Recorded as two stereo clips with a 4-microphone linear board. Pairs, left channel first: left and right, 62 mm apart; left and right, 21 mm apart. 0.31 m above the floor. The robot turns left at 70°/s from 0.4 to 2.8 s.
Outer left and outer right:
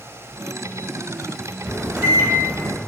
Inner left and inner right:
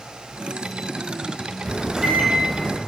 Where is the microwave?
20° right (ahead or behind), 0.6 m; by 2.8 s 15° right (ahead or behind), 0.6 m.